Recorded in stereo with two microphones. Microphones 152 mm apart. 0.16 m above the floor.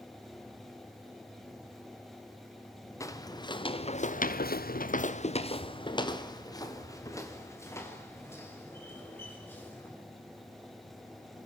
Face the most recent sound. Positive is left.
turn(degrees=10)  # may be behind; listen again after turning